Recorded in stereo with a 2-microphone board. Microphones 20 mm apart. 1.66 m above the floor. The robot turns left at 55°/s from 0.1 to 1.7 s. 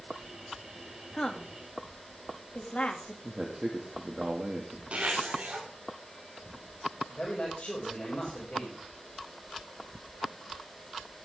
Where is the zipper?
80° right, 5 m.